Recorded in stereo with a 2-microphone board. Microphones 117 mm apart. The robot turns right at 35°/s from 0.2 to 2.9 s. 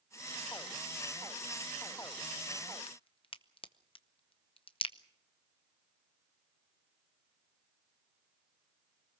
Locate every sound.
2.9 s a crack: 50° left (ahead or behind), 0.8 m